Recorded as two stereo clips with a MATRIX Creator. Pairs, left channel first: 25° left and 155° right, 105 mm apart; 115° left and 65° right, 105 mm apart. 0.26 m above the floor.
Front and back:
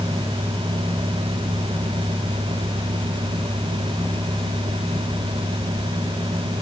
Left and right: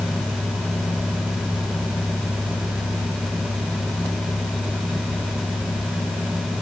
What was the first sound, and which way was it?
Only background noise.